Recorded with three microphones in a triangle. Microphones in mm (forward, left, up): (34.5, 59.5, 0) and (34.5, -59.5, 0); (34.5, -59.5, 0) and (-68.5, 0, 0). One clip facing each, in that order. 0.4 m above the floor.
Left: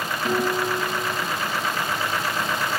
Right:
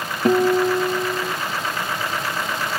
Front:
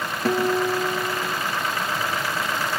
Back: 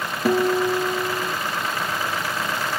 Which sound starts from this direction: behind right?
A guitar, at 0.2 s.